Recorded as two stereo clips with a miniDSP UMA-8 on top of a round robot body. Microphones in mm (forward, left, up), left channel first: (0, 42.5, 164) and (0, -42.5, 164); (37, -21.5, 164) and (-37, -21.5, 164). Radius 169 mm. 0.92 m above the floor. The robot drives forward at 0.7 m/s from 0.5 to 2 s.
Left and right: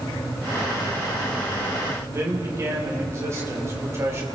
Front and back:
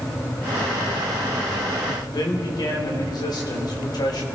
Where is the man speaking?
30° right, 3.5 m.